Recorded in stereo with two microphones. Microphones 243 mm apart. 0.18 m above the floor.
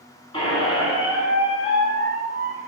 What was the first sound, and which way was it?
A squeak, 20° left (ahead or behind).